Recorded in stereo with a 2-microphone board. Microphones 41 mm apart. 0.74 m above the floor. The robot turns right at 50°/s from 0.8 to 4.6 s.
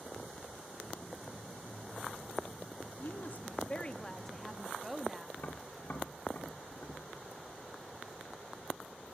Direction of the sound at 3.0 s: 105° left.